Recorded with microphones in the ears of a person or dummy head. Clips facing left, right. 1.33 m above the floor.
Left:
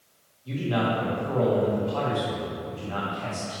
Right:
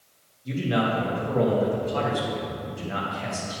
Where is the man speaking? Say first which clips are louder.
Right 1 dB; 25° right (ahead or behind), 1.9 m.